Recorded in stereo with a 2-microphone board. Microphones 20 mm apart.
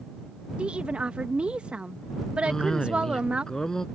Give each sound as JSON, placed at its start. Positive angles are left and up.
{"t": 0.6, "sound": "a woman speaking", "side_deg": -70}
{"t": 2.5, "sound": "a cough", "side_deg": 35}